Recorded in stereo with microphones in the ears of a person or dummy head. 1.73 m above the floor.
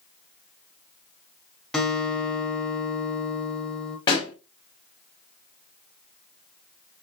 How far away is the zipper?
No zipper in this recording.